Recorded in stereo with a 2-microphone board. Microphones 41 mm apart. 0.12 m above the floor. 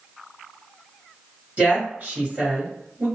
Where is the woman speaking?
35° right (ahead or behind), 1.9 m.